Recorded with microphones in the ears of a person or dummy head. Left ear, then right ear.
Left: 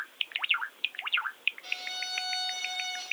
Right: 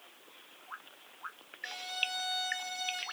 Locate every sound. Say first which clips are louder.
1.6 s a violin: left 1 dB; 20° right (ahead or behind), 3.5 m